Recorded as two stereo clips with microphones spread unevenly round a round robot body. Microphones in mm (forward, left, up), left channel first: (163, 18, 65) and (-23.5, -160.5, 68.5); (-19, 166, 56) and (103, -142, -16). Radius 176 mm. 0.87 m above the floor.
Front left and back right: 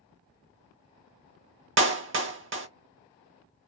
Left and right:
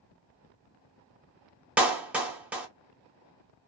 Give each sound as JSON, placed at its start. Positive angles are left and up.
{"t": 1.8, "sound": "a clap", "azimuth_deg": -140, "distance_m": 0.7}